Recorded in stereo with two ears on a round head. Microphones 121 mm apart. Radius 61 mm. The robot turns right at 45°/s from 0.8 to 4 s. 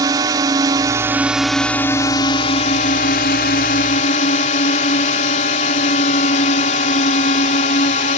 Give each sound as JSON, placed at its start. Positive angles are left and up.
{"t": 0.0, "sound": "a drone", "azimuth_deg": -30}